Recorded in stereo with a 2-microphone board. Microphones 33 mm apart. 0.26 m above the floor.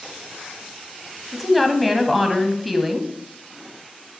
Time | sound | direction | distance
1.3 | a woman speaking | 5° left (ahead or behind) | 1.7 m